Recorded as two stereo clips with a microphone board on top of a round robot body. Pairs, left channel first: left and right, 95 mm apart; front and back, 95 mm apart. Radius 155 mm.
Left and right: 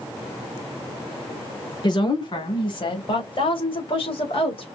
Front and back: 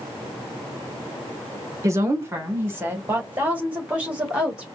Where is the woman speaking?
125° left, 2.5 m; by 4.7 s 100° left, 3.5 m.